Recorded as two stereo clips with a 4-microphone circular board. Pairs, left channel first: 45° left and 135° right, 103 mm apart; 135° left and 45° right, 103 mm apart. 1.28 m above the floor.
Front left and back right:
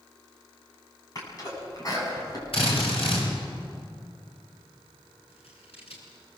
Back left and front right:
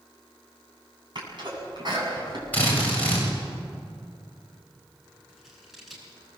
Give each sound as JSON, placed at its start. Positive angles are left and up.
{"t": 1.1, "sound": "a sneeze", "azimuth_deg": -5, "distance_m": 8.5}
{"t": 2.5, "sound": "a drill", "azimuth_deg": 60, "distance_m": 8.5}
{"t": 5.3, "sound": "scissors", "azimuth_deg": 45, "distance_m": 6.0}